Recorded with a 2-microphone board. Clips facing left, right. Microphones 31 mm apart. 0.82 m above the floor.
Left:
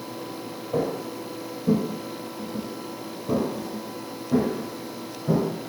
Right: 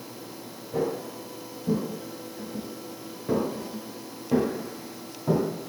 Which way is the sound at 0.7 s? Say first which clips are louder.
Left 2 dB; 55° left (ahead or behind).